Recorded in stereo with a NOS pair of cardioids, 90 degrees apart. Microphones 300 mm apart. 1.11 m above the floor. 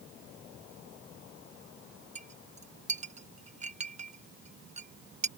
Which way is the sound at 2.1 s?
25° right.